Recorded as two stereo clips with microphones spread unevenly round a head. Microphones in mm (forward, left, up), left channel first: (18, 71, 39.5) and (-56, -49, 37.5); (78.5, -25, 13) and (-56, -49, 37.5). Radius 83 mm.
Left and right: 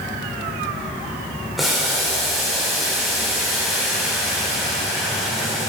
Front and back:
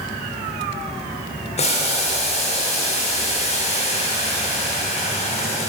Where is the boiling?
30° right, 2.5 m.